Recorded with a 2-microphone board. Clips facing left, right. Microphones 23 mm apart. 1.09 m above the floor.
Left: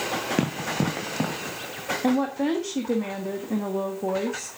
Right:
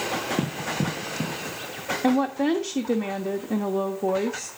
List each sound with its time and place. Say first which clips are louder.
0.4 s running footsteps: left 1 dB; 55° left (ahead or behind), 2.5 m
2.0 s a woman speaking: right 2 dB; 10° right (ahead or behind), 1.3 m